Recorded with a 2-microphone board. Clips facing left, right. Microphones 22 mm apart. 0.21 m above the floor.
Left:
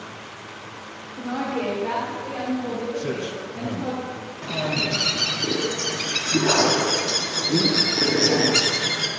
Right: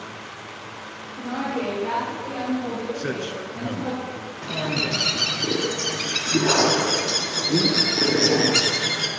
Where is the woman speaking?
10° right (ahead or behind), 4.5 m; by 4.0 s 5° right (ahead or behind), 7 m.